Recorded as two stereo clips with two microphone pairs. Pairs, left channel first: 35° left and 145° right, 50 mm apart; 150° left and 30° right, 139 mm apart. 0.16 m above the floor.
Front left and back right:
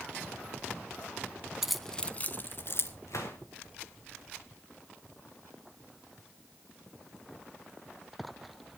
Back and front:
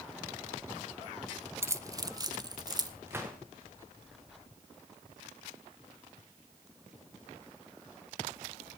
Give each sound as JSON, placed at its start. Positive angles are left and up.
{"t": 1.6, "sound": "keys jangling", "azimuth_deg": -70, "distance_m": 0.8}
{"t": 3.1, "sound": "a gunshot", "azimuth_deg": 45, "distance_m": 3.5}